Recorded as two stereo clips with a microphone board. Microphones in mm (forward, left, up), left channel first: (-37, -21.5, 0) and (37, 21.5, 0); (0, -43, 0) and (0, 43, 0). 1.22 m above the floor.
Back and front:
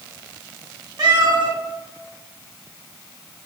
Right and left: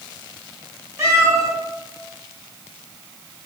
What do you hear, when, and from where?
1.0 s a cat meowing: 45° left, 1.0 m